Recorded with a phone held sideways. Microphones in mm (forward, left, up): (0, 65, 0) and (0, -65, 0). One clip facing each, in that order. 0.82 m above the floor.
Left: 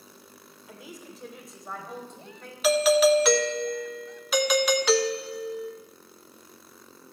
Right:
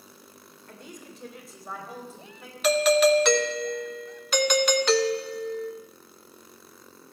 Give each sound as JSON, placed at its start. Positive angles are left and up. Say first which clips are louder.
{"t": 0.7, "sound": "a woman speaking", "louder": "left 1 dB", "side_deg": 5, "distance_m": 2.5}
{"t": 2.6, "sound": "a doorbell", "louder": "even", "side_deg": 5, "distance_m": 0.8}